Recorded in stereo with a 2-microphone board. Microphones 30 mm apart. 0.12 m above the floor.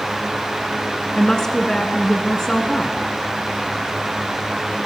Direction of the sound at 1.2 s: 15° left (ahead or behind).